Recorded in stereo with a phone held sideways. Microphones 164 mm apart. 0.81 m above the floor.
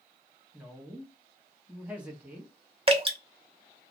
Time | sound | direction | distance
0.5 | a woman speaking | 5° right (ahead or behind) | 0.9 m
2.9 | dripping | 35° right (ahead or behind) | 0.8 m